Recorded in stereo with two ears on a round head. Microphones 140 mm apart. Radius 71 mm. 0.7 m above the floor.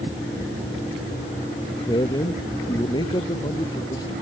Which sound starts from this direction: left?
A man speaking, at 1.9 s.